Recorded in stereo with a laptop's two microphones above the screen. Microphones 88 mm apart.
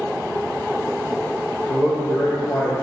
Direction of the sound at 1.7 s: 40° left (ahead or behind).